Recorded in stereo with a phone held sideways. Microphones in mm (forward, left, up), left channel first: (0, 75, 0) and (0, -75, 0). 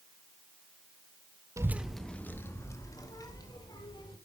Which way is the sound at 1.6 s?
20° right (ahead or behind).